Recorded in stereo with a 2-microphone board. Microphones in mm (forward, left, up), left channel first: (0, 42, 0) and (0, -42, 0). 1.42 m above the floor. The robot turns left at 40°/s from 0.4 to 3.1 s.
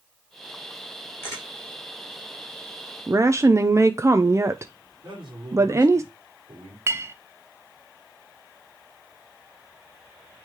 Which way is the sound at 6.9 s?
30° right (ahead or behind).